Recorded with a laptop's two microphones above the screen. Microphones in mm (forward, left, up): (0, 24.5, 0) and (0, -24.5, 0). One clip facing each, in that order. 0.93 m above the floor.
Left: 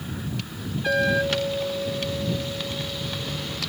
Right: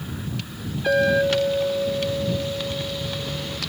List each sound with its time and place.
0.9 s a clink: 40° right (ahead or behind)